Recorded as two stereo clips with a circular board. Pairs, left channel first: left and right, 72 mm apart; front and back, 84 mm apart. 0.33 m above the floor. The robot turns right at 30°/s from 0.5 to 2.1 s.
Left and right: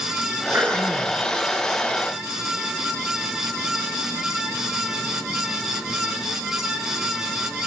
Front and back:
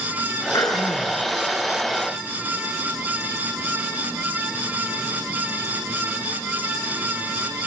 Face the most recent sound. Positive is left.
turn(degrees=15)